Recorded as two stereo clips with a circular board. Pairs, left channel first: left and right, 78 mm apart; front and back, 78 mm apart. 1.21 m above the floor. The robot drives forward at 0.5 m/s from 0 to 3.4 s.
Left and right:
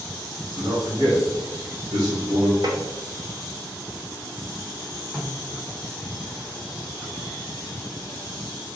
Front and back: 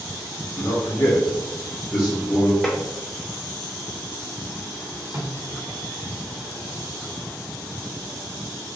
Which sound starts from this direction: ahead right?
A man speaking, at 0.6 s.